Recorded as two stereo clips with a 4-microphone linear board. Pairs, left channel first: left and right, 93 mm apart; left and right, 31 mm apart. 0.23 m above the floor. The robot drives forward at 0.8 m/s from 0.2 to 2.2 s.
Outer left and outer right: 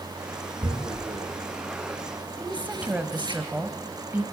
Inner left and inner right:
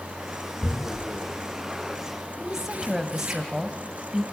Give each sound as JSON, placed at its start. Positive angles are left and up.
{"t": 0.6, "sound": "tearing paper", "side_deg": -65, "distance_m": 3.5}
{"t": 2.4, "sound": "a woman speaking", "side_deg": -15, "distance_m": 1.1}